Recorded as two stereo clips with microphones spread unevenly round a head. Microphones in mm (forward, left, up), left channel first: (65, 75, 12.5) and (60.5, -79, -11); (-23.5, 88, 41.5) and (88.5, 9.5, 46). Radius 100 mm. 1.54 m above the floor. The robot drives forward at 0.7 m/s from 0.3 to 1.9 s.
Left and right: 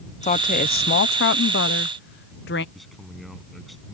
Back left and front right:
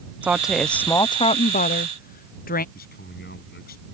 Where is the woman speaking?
45° left; by 2.6 s 130° left.